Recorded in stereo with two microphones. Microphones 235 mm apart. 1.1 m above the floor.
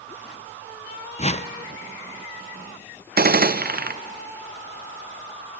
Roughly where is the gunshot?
Right.